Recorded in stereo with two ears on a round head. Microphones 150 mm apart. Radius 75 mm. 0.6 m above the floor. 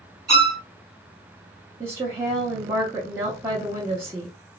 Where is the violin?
5° left (ahead or behind), 0.9 m.